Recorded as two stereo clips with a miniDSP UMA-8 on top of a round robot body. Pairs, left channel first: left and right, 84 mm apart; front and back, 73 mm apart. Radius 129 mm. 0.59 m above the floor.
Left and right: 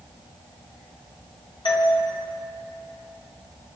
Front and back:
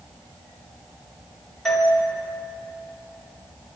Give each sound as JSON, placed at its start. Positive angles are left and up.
{"t": 1.6, "sound": "a doorbell", "azimuth_deg": 85, "distance_m": 4.0}